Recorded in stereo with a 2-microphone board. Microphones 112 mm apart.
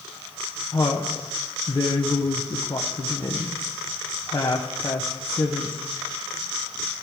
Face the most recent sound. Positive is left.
turn(degrees=35)  # may be behind; listen again after turning